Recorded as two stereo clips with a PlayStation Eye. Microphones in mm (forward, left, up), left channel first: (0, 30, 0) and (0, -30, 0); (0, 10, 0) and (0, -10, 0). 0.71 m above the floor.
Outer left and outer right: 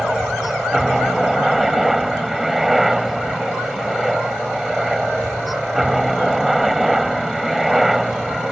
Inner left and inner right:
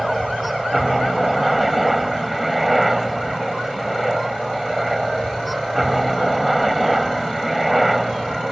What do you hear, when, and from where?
0.0 s a helicopter: 5° right (ahead or behind)